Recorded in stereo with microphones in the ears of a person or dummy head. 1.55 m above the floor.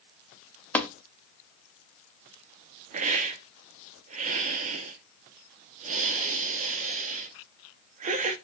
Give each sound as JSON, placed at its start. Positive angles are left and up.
{"t": 0.8, "sound": "tapping", "side_deg": 10, "distance_m": 0.5}
{"t": 2.9, "sound": "a hiss", "side_deg": -40, "distance_m": 0.6}